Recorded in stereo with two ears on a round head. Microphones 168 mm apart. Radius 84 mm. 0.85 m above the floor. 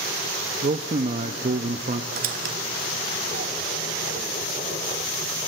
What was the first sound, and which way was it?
A man speaking, 35° right (ahead or behind).